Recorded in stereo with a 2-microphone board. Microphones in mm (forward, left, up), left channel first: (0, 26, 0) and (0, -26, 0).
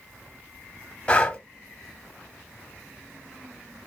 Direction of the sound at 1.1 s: 20° left (ahead or behind).